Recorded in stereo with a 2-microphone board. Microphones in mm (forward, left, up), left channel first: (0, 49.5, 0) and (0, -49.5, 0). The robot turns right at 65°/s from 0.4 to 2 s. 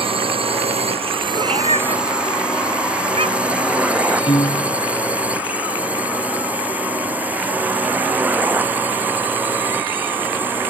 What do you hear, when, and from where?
0.0 s a drone: 70° right (ahead or behind); by 10.7 s 20° right (ahead or behind)
1.3 s a cat meowing: 60° right (ahead or behind); by 3.6 s 75° right (ahead or behind)
4.3 s a piano: 75° left (ahead or behind)